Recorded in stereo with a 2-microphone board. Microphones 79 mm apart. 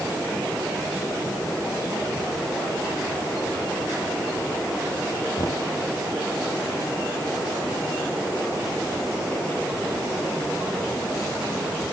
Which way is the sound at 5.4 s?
70° left (ahead or behind).